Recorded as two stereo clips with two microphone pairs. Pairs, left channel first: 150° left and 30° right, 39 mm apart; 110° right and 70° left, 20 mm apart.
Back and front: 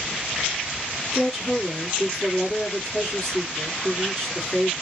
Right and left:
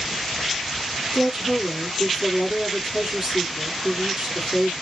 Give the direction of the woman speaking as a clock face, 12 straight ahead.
9 o'clock.